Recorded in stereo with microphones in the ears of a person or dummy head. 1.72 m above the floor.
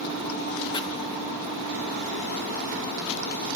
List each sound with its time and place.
0.7 s chopping: 20° left (ahead or behind), 1.1 m